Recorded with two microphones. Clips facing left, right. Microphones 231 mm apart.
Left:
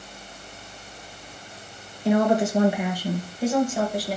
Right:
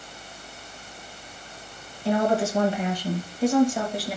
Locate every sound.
2.0 s a woman speaking: 20° left (ahead or behind), 3 m; by 4.2 s centre (ahead or behind), 3 m